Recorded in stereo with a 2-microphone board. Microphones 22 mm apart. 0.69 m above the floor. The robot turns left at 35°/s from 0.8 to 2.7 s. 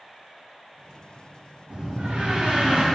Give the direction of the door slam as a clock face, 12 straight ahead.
3 o'clock.